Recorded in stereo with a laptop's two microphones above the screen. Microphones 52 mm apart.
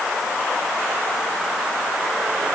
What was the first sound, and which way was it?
Only background noise.